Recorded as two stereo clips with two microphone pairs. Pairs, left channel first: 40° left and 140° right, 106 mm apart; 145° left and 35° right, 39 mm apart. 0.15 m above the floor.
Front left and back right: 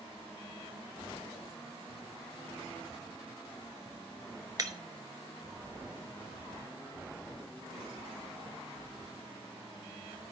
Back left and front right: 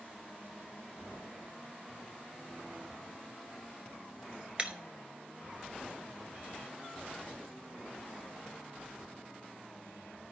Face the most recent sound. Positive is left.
turn(degrees=-95)